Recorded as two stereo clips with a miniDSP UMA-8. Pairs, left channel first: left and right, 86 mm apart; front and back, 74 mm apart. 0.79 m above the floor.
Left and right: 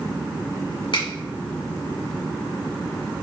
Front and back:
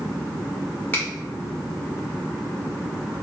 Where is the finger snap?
65° left, 1.8 m.